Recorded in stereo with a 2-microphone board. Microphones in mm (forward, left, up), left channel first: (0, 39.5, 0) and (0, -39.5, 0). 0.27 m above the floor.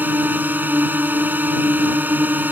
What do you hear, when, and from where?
0.0 s a drone: 25° right (ahead or behind)